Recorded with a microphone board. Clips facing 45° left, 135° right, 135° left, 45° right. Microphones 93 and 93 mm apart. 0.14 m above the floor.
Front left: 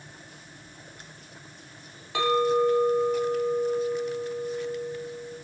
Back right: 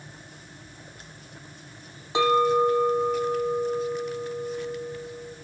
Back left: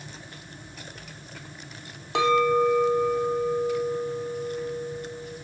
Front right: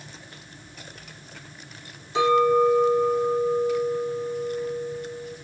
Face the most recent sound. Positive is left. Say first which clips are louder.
# back right 2 dB, front right 2 dB
turn(degrees=155)